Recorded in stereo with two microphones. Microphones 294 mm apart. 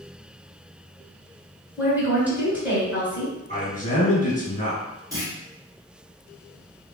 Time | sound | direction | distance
1.8 | a woman speaking | 5° right (ahead or behind) | 1.8 m
3.5 | a man speaking | 30° left (ahead or behind) | 1.8 m
5.1 | a clunk | 10° right (ahead or behind) | 1.3 m